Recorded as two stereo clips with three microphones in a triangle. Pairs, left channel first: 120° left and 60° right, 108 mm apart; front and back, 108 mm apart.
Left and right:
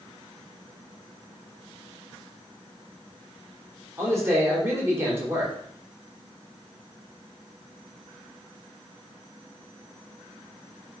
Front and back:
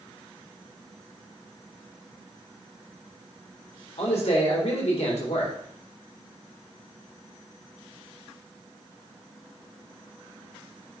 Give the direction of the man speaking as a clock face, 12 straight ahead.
12 o'clock.